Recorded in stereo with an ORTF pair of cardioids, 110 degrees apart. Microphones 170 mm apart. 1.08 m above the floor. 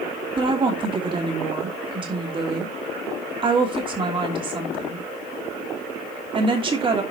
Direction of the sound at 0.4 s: 30° right.